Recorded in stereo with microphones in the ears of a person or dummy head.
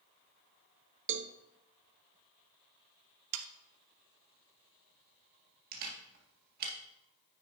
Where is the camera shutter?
55° right (ahead or behind), 2 m.